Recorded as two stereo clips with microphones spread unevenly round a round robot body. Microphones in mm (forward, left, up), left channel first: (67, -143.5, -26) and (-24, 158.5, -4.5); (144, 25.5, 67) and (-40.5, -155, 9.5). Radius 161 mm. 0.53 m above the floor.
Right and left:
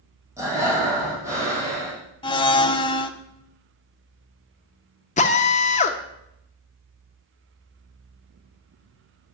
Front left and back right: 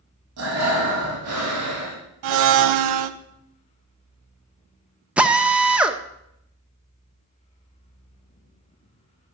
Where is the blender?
150° right, 0.7 m.